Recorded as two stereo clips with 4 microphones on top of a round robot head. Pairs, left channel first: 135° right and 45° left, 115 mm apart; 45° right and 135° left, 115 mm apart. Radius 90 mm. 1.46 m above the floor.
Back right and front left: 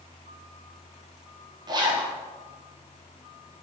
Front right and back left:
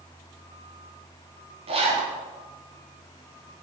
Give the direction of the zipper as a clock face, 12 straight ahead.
9 o'clock.